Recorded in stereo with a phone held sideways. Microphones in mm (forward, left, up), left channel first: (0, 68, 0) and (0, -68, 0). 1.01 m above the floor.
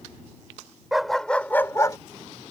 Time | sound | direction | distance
0.9 | a dog barking | centre (ahead or behind) | ?